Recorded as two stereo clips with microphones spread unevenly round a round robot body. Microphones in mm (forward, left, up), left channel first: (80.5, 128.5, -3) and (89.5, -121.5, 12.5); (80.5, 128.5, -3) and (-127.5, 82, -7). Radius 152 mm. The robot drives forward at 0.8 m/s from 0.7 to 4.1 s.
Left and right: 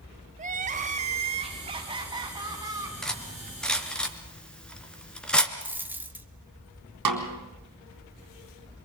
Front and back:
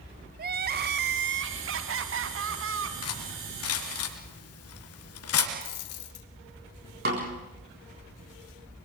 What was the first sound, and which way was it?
Crying, 145° right.